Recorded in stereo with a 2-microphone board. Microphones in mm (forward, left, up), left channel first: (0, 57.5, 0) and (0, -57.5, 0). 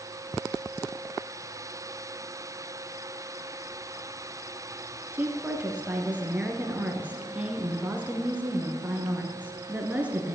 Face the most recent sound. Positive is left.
turn(degrees=-15)  # may be behind; listen again after turning